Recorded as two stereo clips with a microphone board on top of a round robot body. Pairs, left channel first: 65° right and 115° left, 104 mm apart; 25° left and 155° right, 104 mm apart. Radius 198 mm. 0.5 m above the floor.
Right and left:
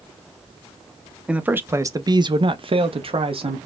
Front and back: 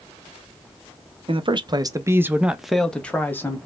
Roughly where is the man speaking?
Behind.